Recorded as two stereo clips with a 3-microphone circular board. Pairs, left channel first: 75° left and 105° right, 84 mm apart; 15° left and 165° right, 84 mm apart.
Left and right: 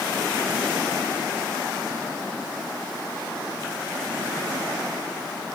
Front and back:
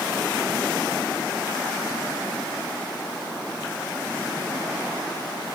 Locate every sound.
Only background noise.